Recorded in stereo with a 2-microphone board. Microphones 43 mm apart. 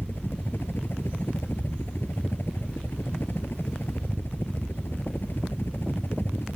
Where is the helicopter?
65° left (ahead or behind).